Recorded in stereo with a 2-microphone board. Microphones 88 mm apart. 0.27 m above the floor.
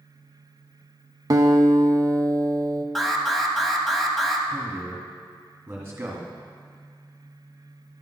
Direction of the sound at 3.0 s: Centre (ahead or behind).